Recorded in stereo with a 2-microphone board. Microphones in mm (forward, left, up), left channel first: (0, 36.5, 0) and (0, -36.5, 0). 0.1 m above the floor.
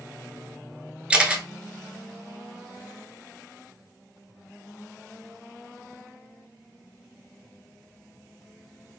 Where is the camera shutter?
15° right (ahead or behind), 0.7 m.